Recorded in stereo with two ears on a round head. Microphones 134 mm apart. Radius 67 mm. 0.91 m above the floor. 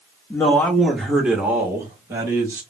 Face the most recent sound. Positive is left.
turn(degrees=-25)  # may be behind; listen again after turning